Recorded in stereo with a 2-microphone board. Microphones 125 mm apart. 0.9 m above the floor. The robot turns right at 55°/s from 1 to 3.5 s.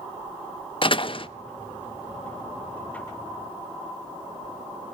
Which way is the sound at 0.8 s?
45° left (ahead or behind).